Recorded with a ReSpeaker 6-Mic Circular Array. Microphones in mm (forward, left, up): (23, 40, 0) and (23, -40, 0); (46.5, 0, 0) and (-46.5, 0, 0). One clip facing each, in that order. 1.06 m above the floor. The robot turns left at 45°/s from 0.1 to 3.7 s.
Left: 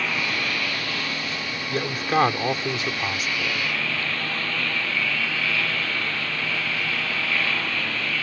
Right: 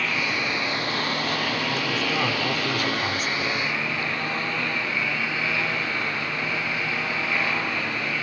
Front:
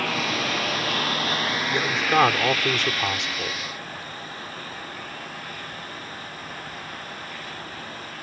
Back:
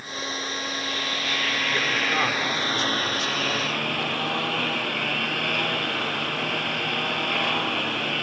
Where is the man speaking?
70° left; by 3.6 s 15° right.